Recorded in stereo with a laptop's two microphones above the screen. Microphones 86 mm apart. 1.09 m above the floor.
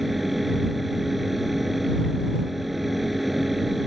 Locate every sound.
0.0 s a fan: centre (ahead or behind)